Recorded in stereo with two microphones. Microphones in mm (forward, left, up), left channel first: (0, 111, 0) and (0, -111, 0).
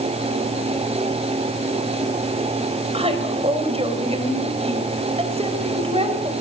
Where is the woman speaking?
25° right (ahead or behind), 4 m.